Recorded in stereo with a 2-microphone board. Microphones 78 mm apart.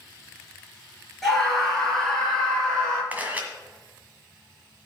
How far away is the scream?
About 3.5 m.